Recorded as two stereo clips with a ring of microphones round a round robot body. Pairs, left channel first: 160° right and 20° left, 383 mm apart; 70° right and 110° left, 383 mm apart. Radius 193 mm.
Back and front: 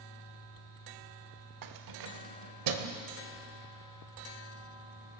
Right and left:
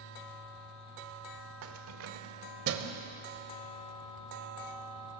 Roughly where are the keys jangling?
Ahead left.